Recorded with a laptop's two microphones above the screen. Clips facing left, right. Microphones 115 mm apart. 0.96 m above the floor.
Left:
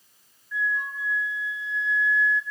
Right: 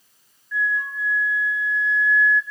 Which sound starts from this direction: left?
A flute, at 0.5 s.